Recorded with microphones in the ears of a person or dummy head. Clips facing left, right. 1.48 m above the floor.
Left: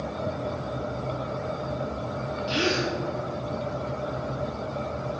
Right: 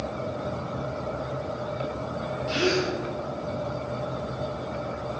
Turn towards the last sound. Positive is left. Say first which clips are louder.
# right 2 dB
turn(degrees=20)  # may be behind; listen again after turning